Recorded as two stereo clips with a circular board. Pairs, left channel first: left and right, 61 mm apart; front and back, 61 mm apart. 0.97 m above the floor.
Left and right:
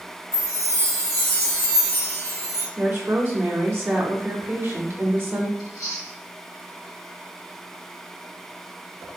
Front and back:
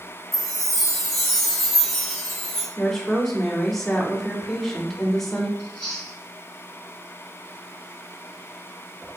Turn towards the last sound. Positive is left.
turn(degrees=80)